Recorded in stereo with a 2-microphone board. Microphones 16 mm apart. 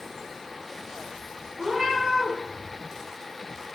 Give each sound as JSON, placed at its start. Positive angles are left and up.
{"t": 1.6, "sound": "a cat meowing", "side_deg": -65, "distance_m": 2.0}